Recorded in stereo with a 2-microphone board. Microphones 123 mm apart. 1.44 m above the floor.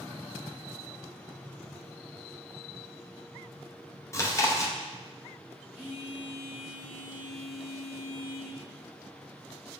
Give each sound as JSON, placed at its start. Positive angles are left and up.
{"t": 4.1, "sound": "chewing", "side_deg": 25, "distance_m": 0.5}
{"t": 5.7, "sound": "a phone buzzing", "side_deg": -15, "distance_m": 0.9}